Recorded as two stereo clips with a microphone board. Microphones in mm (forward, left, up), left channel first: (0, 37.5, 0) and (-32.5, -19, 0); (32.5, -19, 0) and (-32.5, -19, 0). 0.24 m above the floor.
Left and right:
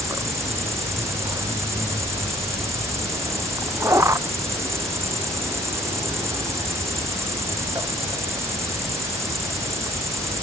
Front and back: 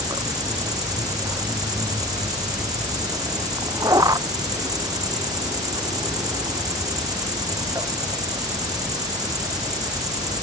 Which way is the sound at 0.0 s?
160° right.